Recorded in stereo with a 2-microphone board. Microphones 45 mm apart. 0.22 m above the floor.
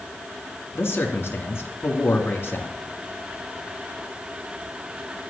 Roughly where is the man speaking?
Left.